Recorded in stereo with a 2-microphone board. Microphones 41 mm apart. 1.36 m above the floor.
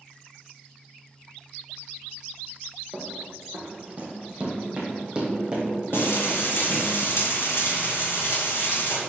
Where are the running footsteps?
40° right (ahead or behind), 2 m; by 6.9 s 15° right (ahead or behind), 3.5 m.